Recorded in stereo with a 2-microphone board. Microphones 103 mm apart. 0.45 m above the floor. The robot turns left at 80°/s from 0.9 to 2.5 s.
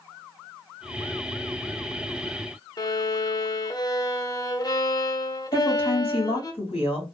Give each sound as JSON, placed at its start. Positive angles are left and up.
{"t": 2.8, "sound": "a violin", "side_deg": 40, "distance_m": 0.7}
{"t": 5.5, "sound": "a woman speaking", "side_deg": 70, "distance_m": 2.0}